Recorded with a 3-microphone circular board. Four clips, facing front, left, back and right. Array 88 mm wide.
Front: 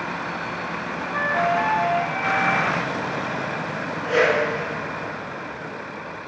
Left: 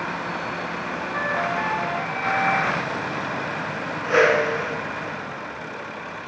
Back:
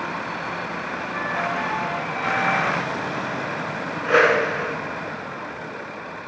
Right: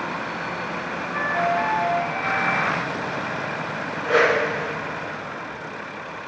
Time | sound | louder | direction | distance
1.1 | a flute | right 3 dB, front 5 dB | 5° left | 0.7 m
4.0 | a whoosh | left 1 dB, back 2 dB | 175° right | 2 m